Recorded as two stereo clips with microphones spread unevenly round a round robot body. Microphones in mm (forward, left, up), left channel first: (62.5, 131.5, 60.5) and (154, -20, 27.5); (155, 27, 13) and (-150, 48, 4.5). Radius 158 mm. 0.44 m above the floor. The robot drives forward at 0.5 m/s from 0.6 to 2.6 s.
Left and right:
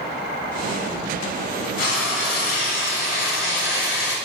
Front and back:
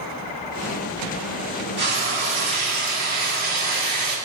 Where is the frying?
125° left, 3.5 m; by 4.2 s 130° left, 3.5 m.